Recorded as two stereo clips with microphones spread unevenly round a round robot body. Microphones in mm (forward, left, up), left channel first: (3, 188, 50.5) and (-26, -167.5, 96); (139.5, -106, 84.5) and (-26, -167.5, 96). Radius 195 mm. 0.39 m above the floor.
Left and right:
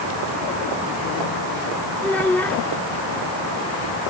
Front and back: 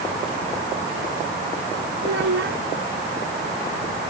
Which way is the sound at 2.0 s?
170° left.